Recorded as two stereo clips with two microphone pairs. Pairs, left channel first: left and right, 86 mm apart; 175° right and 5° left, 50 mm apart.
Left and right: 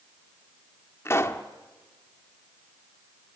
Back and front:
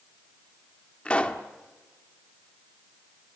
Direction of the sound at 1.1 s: 130° left.